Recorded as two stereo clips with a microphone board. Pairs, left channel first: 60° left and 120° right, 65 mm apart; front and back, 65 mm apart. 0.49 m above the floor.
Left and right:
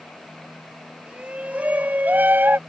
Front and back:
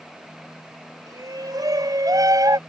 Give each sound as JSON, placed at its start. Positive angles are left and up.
{"t": 1.1, "sound": "a shout", "azimuth_deg": 170}